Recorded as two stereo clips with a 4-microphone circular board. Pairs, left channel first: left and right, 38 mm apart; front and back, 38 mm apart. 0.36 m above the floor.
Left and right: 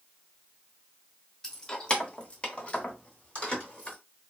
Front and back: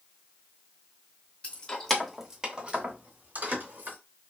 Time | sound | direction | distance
1.4 | keys jangling | 25° left | 0.6 m